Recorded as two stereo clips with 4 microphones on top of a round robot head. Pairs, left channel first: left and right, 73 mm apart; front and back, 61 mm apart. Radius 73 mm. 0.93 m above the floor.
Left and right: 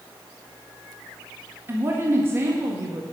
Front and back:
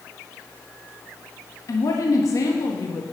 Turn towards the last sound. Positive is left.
turn(degrees=-30)